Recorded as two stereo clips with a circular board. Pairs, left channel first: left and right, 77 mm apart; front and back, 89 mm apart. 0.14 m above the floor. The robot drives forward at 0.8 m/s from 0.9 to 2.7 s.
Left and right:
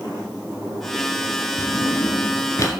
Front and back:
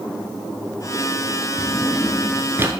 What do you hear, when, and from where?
1.6 s a drawer: 65° left, 1.0 m; by 2.7 s 125° left, 1.1 m